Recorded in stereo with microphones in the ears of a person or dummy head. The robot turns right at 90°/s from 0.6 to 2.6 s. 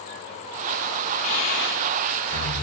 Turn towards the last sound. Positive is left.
turn(degrees=10)  # may be behind; listen again after turning